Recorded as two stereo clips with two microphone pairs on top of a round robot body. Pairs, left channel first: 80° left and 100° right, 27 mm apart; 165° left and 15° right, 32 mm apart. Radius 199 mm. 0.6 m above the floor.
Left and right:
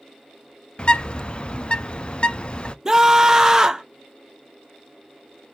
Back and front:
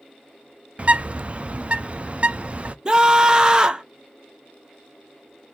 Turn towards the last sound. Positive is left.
turn(degrees=-35)